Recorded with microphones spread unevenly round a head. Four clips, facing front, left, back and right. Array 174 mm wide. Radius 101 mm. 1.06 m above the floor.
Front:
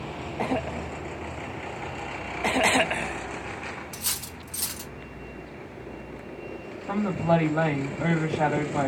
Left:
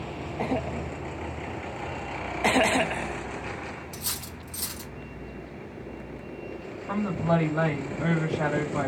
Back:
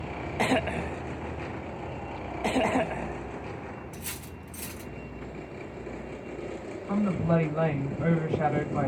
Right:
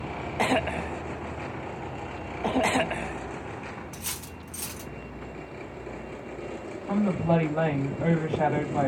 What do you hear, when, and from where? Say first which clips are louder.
3.9 s cutlery clinking: left 1 dB, front 2 dB; 25° right, 1.1 m
6.9 s a woman speaking: right 1 dB, front 3 dB; 20° right, 2 m